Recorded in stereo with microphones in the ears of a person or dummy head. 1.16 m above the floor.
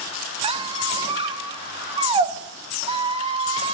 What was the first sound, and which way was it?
A squeak, 30° right (ahead or behind).